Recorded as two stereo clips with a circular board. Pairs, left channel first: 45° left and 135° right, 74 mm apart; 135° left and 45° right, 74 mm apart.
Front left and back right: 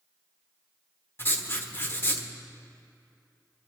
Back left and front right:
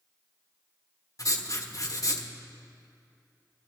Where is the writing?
100° left, 1.2 m.